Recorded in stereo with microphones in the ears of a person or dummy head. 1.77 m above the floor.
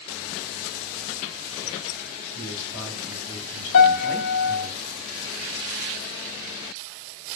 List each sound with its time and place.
2.4 s a man speaking: 60° left (ahead or behind), 4.5 m
3.7 s a piano: 80° left, 1.7 m